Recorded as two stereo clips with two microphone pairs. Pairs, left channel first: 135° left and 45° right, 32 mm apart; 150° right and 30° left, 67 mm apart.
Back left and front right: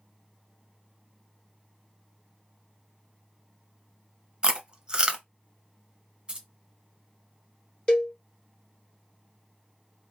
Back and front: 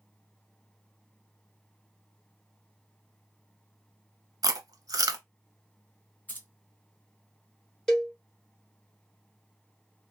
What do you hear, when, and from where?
4.4 s chewing: 15° left, 0.5 m
6.3 s keys jangling: 90° right, 0.9 m
7.9 s a cowbell: 135° left, 1.0 m